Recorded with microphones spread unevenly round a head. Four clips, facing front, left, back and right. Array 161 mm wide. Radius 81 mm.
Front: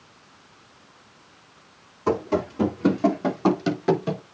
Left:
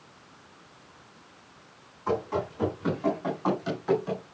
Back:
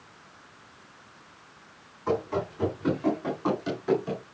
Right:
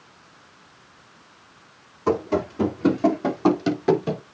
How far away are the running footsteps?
About 5 m.